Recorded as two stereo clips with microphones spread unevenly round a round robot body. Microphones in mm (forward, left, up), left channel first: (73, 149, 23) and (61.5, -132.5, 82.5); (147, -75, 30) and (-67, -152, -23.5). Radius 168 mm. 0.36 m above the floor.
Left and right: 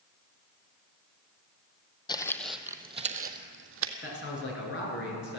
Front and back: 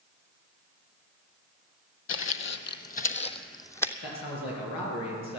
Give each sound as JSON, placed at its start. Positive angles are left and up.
{"t": 2.1, "sound": "footsteps", "azimuth_deg": 10, "distance_m": 1.0}
{"t": 4.0, "sound": "a man speaking", "azimuth_deg": 40, "distance_m": 5.0}